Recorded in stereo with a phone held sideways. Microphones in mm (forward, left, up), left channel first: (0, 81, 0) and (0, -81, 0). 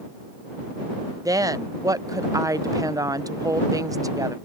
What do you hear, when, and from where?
1.2 s a woman speaking: 20° right (ahead or behind)